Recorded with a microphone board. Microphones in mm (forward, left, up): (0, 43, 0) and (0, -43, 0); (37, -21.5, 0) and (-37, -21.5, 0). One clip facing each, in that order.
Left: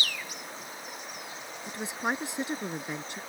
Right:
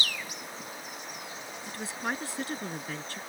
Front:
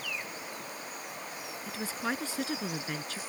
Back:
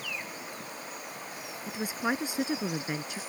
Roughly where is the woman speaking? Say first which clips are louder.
Left 3 dB, back 4 dB; behind left.